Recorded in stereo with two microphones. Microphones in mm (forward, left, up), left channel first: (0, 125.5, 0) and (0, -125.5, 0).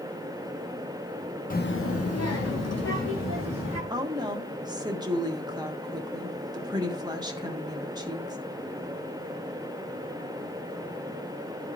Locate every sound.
1.5 s a child speaking: 35° left (ahead or behind), 0.8 m; by 3.8 s 80° left, 3 m
3.9 s a woman speaking: 15° right (ahead or behind), 1.3 m